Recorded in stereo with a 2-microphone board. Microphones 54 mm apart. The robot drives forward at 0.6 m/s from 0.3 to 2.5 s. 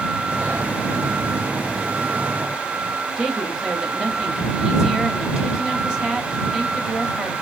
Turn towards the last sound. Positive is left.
turn(degrees=-10)  # may be behind; listen again after turning